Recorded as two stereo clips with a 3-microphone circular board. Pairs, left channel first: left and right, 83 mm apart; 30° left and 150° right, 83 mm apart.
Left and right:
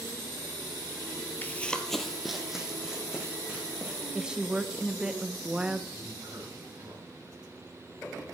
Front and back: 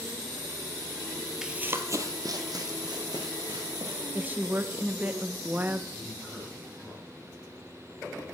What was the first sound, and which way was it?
Running footsteps, 130° left.